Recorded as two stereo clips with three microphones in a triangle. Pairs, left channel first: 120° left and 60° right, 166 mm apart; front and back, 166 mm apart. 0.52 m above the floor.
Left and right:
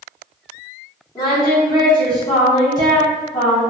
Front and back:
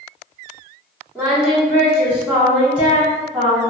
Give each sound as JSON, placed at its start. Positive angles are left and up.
{"t": 1.1, "sound": "singing", "azimuth_deg": 105, "distance_m": 1.1}